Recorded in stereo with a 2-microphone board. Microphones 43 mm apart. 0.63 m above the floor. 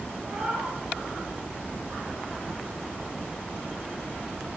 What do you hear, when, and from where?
0.2 s a cat meowing: 25° right (ahead or behind), 8 m